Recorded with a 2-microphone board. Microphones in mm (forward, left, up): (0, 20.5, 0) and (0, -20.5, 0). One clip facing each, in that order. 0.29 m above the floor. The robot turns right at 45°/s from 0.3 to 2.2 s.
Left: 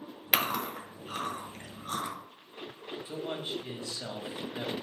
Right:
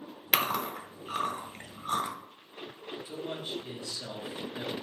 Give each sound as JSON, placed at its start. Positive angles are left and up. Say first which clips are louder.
{"t": 0.3, "sound": "chewing", "louder": "right 1 dB", "side_deg": 5, "distance_m": 0.9}
{"t": 3.0, "sound": "a man speaking", "louder": "left 2 dB", "side_deg": 35, "distance_m": 1.2}